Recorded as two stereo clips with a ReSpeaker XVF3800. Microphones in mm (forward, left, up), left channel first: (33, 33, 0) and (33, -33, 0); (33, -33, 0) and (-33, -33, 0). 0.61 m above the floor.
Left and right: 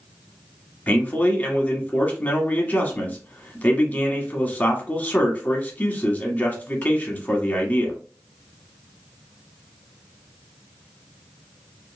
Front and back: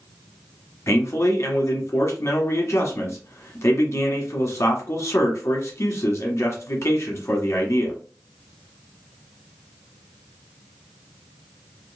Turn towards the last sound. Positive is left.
turn(degrees=30)